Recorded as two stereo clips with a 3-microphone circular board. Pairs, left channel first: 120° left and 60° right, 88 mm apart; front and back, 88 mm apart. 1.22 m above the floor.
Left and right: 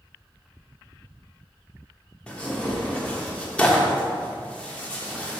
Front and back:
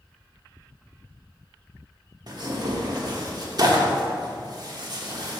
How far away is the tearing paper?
About 1.1 m.